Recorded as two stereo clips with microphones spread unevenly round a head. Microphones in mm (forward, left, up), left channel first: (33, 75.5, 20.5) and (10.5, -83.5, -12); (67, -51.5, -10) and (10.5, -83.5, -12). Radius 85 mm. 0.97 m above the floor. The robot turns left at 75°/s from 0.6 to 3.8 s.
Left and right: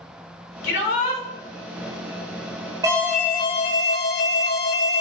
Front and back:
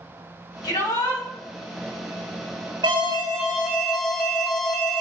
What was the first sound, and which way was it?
A shout, 70° left.